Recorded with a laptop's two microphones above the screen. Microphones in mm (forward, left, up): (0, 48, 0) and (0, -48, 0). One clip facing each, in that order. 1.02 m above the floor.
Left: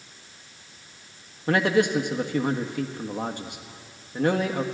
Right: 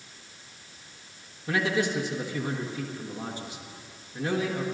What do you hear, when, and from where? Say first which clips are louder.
1.5 s a man speaking: left 6 dB; 55° left (ahead or behind), 1.3 m